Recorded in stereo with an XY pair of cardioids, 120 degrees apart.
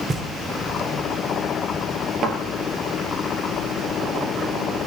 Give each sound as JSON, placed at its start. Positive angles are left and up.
{"t": 0.1, "sound": "knocking", "azimuth_deg": -35, "distance_m": 2.5}
{"t": 2.2, "sound": "a thud", "azimuth_deg": -65, "distance_m": 4.0}